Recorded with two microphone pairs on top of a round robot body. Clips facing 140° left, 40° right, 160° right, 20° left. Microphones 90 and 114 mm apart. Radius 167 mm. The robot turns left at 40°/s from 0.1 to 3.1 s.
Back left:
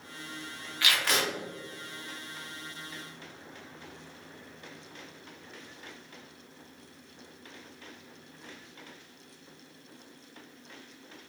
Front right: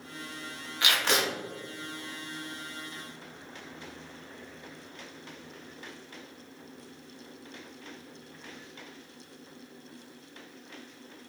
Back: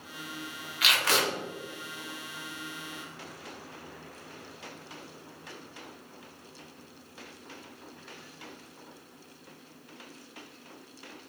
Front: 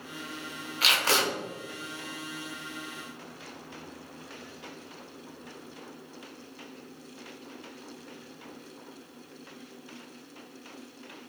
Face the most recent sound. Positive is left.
turn(degrees=-85)